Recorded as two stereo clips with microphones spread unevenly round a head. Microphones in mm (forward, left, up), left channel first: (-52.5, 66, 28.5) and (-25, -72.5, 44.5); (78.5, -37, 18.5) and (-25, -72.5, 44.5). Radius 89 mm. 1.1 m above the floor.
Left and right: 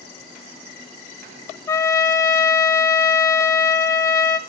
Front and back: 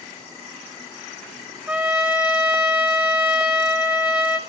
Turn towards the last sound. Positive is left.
turn(degrees=105)